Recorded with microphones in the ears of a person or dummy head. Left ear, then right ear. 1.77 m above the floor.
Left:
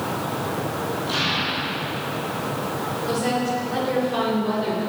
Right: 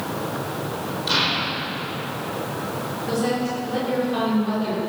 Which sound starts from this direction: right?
An explosion, at 1.1 s.